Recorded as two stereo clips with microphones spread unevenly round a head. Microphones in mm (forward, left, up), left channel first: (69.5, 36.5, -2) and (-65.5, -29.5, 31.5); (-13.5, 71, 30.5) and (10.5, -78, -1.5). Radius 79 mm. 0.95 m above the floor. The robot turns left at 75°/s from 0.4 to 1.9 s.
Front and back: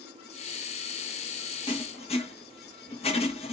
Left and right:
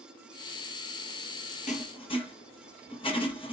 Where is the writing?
60° left, 1.2 m; by 3.5 s 40° left, 1.2 m.